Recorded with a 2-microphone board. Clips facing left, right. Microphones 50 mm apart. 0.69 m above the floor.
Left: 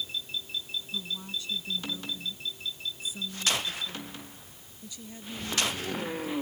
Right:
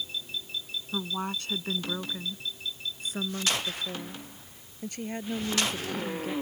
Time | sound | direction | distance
0.9 | a woman speaking | 60° right (ahead or behind) | ?